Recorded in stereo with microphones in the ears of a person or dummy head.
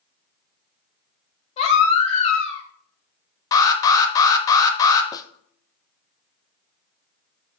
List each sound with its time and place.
1.6 s a baby crying: 35° left (ahead or behind), 2.5 m
3.5 s an alarm: 20° left (ahead or behind), 1.3 m
5.1 s a snare drum: 20° left (ahead or behind), 0.5 m